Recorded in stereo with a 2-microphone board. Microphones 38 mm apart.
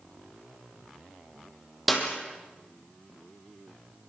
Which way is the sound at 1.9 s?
5° right (ahead or behind).